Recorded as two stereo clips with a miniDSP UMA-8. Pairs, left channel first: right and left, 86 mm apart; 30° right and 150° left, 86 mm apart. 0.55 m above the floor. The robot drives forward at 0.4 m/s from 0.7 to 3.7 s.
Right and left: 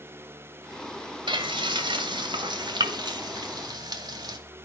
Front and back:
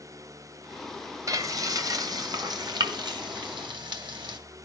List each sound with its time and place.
1.3 s frying: 105° left, 2.0 m; by 4.4 s 125° left, 2.5 m